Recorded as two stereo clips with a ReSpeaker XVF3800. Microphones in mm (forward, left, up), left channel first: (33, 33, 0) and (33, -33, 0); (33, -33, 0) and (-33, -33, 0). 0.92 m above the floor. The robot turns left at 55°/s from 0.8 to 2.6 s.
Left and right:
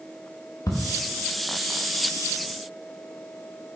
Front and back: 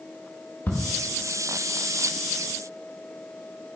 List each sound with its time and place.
0.7 s ticking: 65° left, 0.8 m